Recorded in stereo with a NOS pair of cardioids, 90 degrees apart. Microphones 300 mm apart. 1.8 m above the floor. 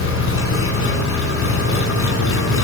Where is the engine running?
50° left, 5.5 m.